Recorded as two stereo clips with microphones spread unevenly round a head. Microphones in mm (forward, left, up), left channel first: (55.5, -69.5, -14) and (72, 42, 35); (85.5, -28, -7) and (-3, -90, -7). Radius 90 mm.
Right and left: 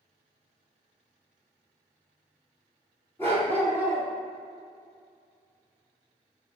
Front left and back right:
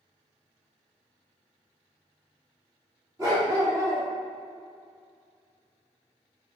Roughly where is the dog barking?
Behind.